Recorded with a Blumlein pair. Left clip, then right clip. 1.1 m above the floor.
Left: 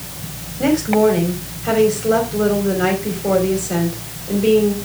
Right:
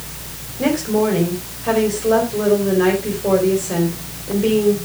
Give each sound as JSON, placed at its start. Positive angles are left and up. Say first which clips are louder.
{"t": 0.6, "sound": "a woman speaking", "louder": "left 3 dB", "azimuth_deg": -20, "distance_m": 4.0}